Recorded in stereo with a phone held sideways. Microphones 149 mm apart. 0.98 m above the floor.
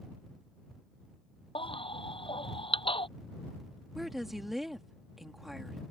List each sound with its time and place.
1.6 s a baby crying: 35° left (ahead or behind)
4.0 s a woman speaking: centre (ahead or behind)